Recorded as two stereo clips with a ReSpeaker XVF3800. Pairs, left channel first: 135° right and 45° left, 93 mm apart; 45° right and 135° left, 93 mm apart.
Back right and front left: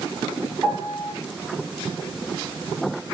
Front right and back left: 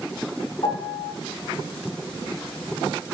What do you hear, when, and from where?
0.6 s a piano: 25° right, 1.6 m